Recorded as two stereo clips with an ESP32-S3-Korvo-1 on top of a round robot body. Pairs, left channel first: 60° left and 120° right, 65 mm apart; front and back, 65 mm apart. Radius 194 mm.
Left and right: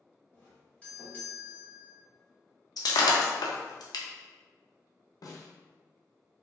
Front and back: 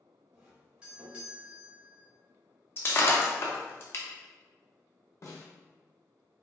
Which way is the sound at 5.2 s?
40° left.